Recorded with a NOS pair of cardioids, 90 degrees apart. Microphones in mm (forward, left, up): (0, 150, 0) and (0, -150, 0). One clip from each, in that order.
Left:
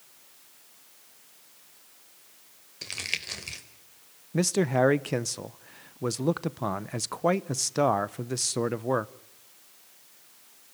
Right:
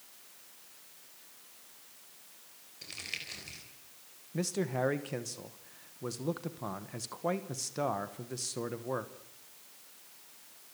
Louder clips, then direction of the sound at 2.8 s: Left 8 dB; 60° left.